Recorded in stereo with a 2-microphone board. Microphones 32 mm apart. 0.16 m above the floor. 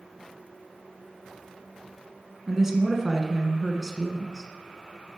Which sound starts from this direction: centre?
A woman speaking, at 2.5 s.